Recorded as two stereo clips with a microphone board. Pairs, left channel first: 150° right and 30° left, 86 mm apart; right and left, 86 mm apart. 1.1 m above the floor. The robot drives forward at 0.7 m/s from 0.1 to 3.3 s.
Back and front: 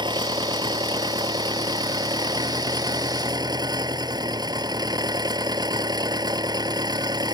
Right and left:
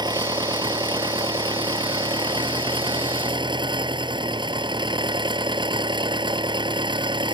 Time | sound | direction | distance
0.0 | an engine running | 55° left | ?